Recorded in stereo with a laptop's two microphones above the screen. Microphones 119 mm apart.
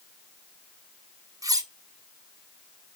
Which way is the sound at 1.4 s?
30° right (ahead or behind).